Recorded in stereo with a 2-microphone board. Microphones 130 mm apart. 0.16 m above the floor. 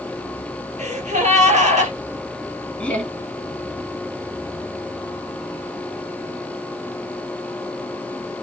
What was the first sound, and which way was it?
A gasp, 60° right (ahead or behind).